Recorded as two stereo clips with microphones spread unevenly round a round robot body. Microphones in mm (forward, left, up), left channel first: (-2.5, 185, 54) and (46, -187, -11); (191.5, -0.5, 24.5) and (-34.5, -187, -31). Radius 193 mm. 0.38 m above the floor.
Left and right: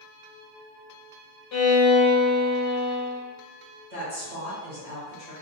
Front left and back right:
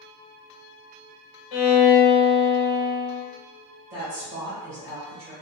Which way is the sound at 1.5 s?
45° left.